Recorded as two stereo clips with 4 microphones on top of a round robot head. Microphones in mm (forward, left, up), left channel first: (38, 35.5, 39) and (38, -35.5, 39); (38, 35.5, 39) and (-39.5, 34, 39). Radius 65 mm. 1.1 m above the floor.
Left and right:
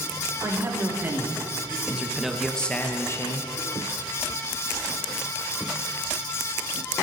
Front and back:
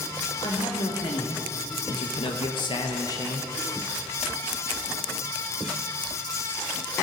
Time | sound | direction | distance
0.4 | a man speaking | 35° right | 3 m